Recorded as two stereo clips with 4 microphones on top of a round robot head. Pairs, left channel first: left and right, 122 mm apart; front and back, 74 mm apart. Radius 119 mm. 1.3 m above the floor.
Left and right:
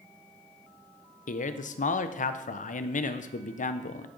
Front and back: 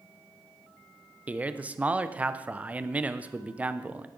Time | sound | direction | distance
1.3 | a man speaking | 105° left | 0.7 m